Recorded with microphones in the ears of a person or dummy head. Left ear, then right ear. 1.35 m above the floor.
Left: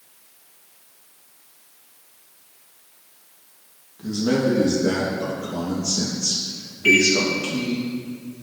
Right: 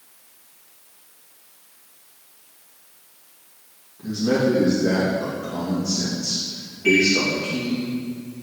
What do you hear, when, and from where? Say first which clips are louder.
4.0 s a man speaking: right 1 dB; 70° left (ahead or behind), 2.5 m
6.8 s a microwave: left 2 dB; 55° left (ahead or behind), 2 m